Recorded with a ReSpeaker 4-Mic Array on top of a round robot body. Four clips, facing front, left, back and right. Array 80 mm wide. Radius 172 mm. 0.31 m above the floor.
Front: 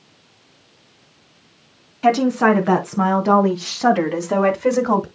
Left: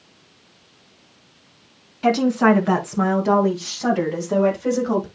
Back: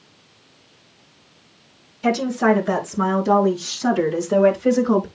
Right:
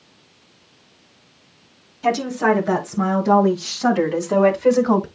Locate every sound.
2.0 s a woman speaking: 25° left, 4.5 m; by 5.1 s 30° right, 3.5 m